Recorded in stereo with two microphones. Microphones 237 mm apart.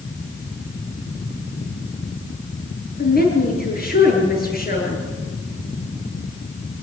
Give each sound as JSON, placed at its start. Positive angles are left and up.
{"t": 3.0, "sound": "a woman speaking", "side_deg": 40, "distance_m": 8.5}